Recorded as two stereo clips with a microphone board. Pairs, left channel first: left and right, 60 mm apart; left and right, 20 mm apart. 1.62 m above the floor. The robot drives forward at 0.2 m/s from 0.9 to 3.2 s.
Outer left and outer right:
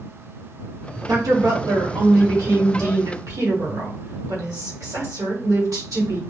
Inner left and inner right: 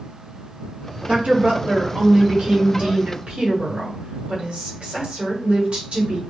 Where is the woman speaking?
85° right, 1.2 m; by 6.2 s 70° right (ahead or behind), 1.3 m.